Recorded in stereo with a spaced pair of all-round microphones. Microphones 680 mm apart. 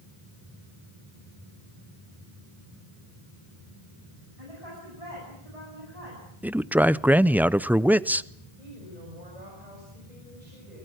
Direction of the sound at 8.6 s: 85° right.